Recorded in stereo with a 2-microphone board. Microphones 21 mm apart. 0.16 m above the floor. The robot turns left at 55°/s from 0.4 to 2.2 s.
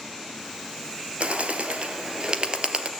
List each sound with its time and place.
1.2 s a bird: 60° right (ahead or behind), 2 m; by 2.9 s 50° right (ahead or behind), 2 m